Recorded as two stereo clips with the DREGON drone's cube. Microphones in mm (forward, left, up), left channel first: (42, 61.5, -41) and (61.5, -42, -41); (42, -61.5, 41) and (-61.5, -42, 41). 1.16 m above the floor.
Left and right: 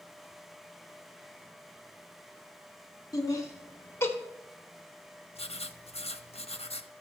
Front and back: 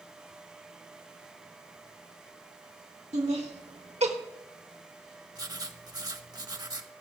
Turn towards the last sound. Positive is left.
turn(degrees=120)